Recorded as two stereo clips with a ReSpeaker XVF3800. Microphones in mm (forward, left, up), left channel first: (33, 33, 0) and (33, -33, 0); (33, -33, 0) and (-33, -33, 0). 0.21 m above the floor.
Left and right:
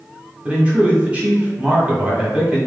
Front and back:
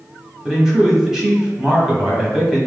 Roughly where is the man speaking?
Right.